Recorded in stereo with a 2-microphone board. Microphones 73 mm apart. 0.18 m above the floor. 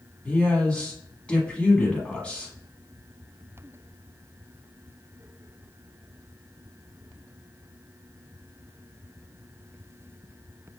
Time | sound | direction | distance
0.2 | a man speaking | 15° left (ahead or behind) | 1.1 m